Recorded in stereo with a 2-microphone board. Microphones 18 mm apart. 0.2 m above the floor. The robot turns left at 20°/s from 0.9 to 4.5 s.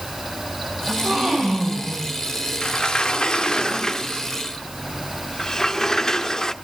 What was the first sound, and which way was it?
A gasp, 50° right (ahead or behind).